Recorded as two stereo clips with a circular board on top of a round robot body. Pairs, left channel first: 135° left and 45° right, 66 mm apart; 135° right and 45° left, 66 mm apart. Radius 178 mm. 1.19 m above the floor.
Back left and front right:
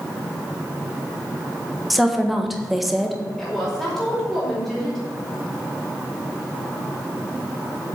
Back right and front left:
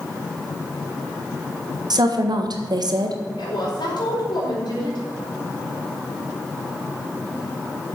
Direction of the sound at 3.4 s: 140° right.